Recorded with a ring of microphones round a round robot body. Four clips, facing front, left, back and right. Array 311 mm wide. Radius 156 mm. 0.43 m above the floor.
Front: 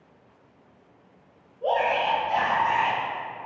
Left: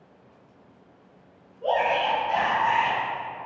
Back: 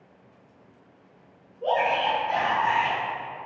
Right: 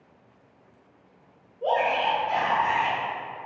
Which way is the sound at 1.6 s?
100° right.